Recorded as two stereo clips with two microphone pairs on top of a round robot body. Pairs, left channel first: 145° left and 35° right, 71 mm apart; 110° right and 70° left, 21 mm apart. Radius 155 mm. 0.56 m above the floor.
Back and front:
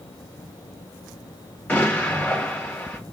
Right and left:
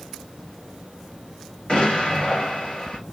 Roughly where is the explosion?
Behind right.